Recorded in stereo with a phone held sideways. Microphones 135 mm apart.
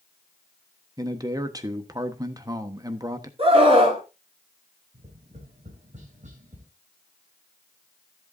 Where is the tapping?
65° right (ahead or behind), 3.5 m.